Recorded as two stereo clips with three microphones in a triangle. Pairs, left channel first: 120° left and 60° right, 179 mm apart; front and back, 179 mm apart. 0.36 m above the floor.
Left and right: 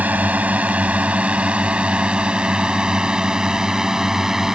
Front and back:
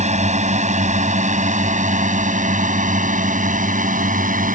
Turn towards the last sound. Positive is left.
turn(degrees=-150)